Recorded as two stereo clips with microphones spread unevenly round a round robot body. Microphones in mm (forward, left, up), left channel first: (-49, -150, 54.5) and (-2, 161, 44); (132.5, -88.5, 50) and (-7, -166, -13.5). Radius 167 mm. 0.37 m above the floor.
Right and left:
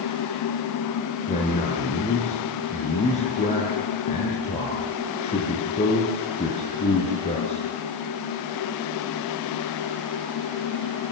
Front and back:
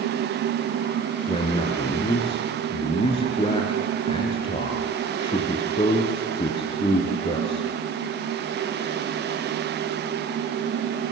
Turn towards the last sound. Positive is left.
turn(degrees=-25)